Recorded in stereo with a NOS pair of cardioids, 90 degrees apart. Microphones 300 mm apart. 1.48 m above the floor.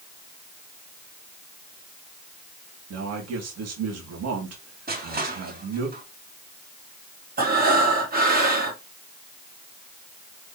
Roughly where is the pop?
I don't hear a pop.